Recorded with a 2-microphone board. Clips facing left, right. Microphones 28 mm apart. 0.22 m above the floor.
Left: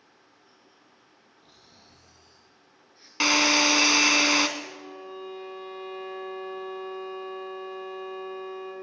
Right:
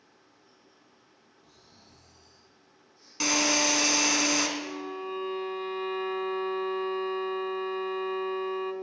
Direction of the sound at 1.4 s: 50° left (ahead or behind).